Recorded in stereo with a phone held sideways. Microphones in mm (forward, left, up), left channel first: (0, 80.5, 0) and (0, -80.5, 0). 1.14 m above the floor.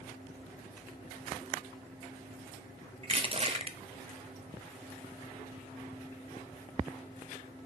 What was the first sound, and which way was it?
Crushing, 35° right (ahead or behind).